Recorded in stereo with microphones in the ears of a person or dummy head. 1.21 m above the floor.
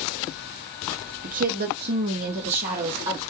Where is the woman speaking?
45° right (ahead or behind), 0.8 m; by 3.2 s 35° right (ahead or behind), 1.1 m.